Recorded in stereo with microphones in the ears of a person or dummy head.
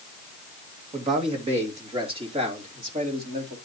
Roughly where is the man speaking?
Right.